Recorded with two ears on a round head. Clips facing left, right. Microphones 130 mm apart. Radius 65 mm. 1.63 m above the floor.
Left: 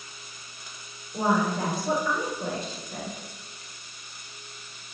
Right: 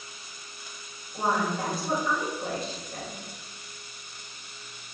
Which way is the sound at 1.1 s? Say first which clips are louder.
Left 3 dB; 75° left (ahead or behind).